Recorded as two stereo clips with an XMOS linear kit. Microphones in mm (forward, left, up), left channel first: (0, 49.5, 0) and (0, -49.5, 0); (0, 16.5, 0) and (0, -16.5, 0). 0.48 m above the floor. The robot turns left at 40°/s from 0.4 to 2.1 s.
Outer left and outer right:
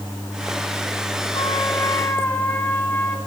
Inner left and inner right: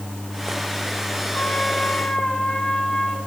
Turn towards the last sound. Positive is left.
turn(degrees=20)